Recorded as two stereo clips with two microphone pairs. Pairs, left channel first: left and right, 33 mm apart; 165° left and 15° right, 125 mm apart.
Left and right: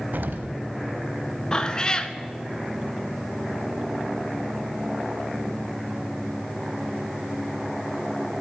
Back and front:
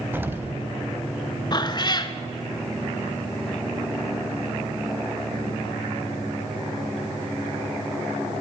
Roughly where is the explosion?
Right.